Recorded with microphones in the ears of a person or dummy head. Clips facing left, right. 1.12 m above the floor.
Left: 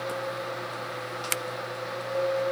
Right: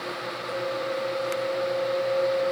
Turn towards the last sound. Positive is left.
No sound to turn to.